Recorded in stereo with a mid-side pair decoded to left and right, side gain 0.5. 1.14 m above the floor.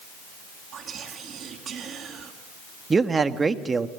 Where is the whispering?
55° right, 2.5 m.